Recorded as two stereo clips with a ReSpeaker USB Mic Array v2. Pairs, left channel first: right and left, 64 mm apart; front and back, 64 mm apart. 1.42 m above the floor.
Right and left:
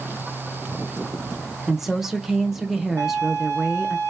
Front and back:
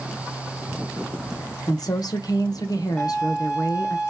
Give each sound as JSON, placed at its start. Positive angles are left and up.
{"t": 1.7, "sound": "a woman speaking", "azimuth_deg": 5, "distance_m": 1.0}
{"t": 3.0, "sound": "a violin", "azimuth_deg": 75, "distance_m": 1.9}